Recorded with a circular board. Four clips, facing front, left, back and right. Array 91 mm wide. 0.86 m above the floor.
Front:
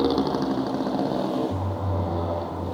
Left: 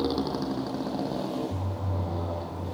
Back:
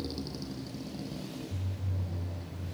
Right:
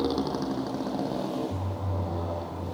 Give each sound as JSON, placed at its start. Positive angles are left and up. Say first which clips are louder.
{"t": 0.0, "sound": "a motorcycle", "louder": "even, front 17 dB", "azimuth_deg": -5}